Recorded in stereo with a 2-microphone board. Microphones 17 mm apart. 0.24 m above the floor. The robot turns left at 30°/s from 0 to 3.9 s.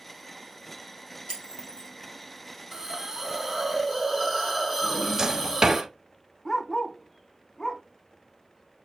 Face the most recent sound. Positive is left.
turn(degrees=40)  # may be behind; listen again after turning